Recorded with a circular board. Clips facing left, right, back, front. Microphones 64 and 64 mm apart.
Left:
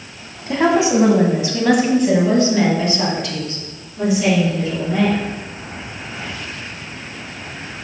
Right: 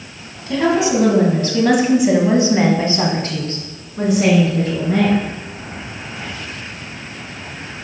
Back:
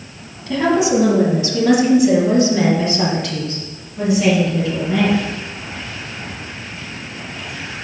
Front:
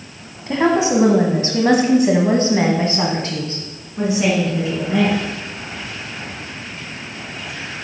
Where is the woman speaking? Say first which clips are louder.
Left 1 dB, even; 50° left, 1.4 m; by 5.2 s 65° right, 2.5 m.